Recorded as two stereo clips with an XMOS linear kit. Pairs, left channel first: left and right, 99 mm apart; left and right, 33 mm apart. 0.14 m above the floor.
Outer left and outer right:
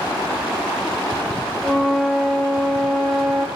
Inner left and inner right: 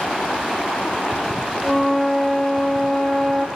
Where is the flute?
Centre (ahead or behind), 0.9 m.